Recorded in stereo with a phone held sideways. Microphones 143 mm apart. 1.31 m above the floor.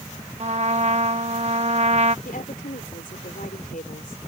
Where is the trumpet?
50° right (ahead or behind).